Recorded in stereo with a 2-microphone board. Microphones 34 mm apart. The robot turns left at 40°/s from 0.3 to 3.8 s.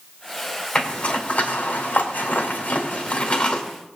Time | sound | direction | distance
0.8 | a zipper | 35° left (ahead or behind) | 2 m